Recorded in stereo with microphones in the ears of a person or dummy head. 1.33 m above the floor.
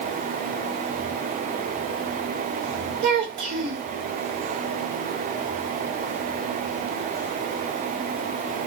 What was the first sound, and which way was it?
A child speaking, 45° right (ahead or behind).